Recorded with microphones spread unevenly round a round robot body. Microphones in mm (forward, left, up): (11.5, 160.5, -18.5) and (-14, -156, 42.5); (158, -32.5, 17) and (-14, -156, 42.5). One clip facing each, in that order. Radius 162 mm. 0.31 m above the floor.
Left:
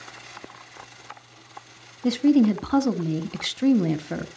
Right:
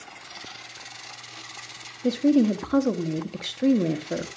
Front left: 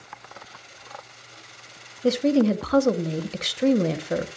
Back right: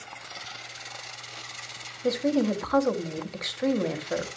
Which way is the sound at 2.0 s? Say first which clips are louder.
Left 2 dB, front left 5 dB; 40° left.